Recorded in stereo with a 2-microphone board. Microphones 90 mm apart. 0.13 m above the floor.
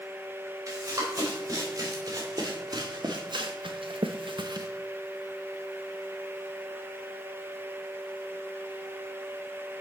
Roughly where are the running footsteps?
Right.